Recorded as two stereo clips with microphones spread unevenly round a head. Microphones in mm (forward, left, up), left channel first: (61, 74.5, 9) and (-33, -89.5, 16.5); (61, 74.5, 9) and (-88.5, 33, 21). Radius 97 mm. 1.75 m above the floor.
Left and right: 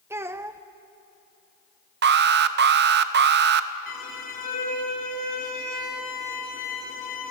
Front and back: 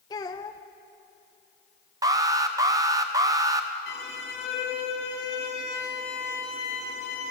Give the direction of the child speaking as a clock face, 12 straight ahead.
2 o'clock.